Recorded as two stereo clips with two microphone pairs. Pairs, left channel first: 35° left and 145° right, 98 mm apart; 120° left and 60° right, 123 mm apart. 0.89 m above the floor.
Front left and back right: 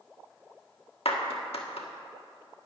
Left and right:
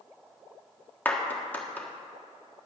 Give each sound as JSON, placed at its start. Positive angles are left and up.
{"t": 1.1, "sound": "a clap", "azimuth_deg": 45, "distance_m": 1.4}